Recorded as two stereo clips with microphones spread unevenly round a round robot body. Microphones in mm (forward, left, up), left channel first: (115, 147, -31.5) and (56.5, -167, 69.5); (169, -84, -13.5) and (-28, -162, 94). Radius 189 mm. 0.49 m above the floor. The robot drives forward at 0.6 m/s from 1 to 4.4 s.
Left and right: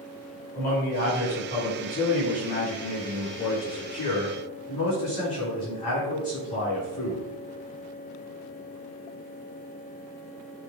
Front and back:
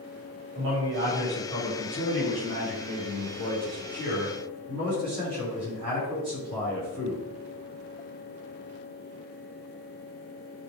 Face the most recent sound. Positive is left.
turn(degrees=155)